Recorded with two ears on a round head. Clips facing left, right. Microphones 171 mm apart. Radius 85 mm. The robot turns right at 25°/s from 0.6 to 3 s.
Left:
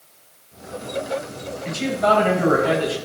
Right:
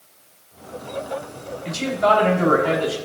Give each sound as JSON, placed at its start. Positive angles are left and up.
{"t": 1.6, "sound": "a man speaking", "azimuth_deg": -45, "distance_m": 3.5}